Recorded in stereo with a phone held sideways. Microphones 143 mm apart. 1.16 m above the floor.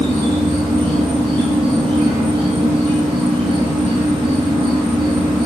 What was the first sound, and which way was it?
An insect, 5° left (ahead or behind).